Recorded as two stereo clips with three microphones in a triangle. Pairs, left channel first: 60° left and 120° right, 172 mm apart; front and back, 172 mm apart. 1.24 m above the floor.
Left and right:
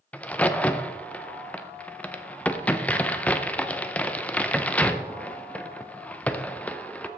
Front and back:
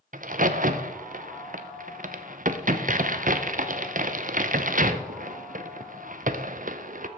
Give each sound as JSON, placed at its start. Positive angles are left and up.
{"t": 0.1, "sound": "a crack", "azimuth_deg": 140, "distance_m": 0.5}